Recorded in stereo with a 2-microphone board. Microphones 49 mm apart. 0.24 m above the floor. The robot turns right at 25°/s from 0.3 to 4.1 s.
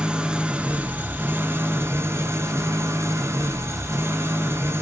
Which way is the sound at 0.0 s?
160° right.